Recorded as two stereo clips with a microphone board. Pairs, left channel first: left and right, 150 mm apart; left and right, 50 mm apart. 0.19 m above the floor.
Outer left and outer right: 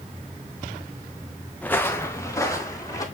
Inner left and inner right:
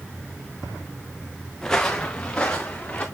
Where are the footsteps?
10° left (ahead or behind), 0.7 m; by 3.0 s 20° left (ahead or behind), 2.5 m.